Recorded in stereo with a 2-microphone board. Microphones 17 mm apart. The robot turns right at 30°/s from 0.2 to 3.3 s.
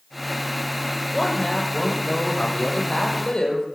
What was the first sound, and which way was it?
A woman speaking, 30° left.